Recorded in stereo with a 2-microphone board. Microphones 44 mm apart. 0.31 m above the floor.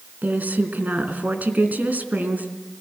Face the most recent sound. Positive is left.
turn(degrees=-40)  # may be behind; listen again after turning